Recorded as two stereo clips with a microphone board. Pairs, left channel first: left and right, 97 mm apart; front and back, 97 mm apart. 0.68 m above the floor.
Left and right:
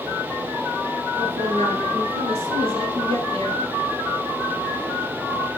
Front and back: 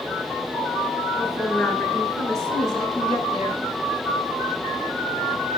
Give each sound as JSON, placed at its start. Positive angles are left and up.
{"t": 1.2, "sound": "a woman speaking", "azimuth_deg": -90, "distance_m": 7.5}